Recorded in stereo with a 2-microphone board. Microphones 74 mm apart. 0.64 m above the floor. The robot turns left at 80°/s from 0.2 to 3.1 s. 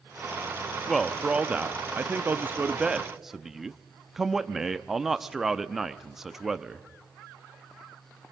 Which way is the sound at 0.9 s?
5° left (ahead or behind).